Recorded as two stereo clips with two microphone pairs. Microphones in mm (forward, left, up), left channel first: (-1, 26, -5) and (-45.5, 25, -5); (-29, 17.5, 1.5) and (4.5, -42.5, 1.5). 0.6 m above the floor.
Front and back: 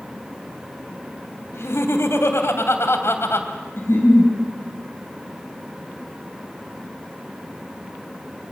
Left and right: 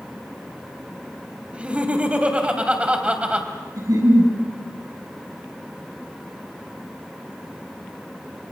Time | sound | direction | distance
1.5 | laughter | 10° left | 3 m
3.8 | a giggle | 25° right | 8 m